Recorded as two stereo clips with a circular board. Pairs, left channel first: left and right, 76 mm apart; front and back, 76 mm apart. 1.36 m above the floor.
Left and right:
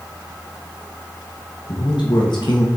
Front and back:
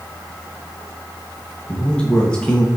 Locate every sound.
1.7 s a man speaking: 75° left, 1.5 m